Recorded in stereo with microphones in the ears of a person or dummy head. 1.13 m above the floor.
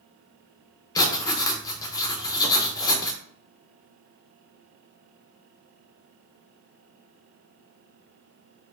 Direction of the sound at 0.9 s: 20° left (ahead or behind).